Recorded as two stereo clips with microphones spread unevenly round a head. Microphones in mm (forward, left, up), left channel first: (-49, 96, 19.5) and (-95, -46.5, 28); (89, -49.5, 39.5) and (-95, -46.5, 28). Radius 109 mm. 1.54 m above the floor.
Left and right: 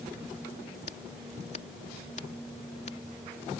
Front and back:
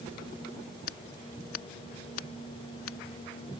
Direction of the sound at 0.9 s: 10° left.